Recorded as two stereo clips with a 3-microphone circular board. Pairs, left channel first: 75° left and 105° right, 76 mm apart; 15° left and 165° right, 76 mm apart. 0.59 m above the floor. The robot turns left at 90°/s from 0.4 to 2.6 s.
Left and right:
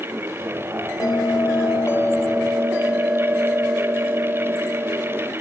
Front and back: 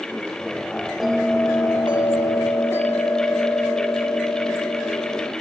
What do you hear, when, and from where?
1.0 s a bell: 110° left, 0.6 m; by 5.3 s 35° right, 0.6 m